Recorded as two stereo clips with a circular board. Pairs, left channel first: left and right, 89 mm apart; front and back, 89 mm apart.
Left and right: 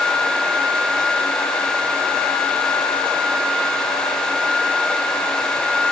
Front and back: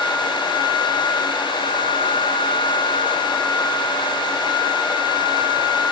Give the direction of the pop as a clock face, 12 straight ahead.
I don't hear a pop.